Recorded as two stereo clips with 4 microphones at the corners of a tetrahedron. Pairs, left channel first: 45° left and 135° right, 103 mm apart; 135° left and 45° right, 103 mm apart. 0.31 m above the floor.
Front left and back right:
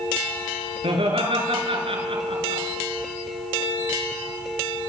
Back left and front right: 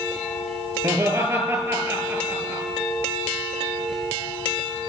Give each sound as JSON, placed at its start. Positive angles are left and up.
{"t": 0.8, "sound": "laughter", "azimuth_deg": -110, "distance_m": 7.0}